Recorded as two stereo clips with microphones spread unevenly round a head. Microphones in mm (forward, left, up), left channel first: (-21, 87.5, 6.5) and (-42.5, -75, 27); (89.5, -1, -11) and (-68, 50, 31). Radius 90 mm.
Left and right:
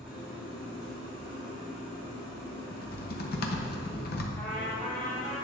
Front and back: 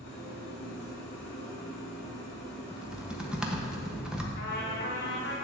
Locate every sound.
0.0 s an engine running: 10° right, 3.5 m
2.7 s typing on a keyboard: 70° left, 1.1 m
4.4 s a trumpet: straight ahead, 2 m